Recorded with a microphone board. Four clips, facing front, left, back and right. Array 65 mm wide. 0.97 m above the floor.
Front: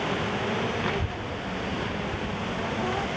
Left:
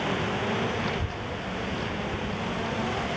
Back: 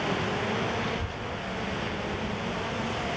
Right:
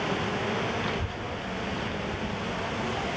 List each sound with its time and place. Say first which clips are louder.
0.8 s a child speaking: left 1 dB, front 3 dB; 5° left, 0.7 m